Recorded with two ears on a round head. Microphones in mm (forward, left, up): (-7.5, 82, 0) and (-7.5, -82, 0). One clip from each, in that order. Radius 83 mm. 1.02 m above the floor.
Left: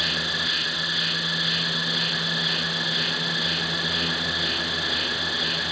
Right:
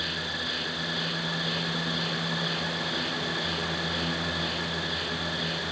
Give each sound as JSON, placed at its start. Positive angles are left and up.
{"t": 0.0, "sound": "an insect", "side_deg": 30}